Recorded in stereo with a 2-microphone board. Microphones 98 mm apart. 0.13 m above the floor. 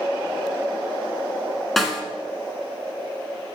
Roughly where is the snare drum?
Centre.